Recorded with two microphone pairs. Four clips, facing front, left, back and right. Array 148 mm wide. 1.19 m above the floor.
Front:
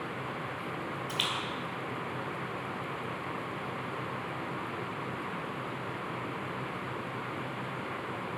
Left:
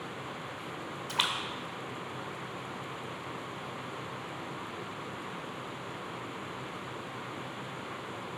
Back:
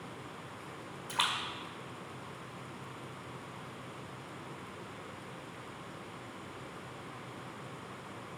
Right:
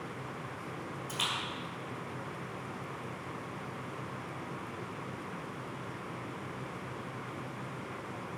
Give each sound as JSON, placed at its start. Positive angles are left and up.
{"t": 1.1, "sound": "a splash", "azimuth_deg": 125, "distance_m": 1.8}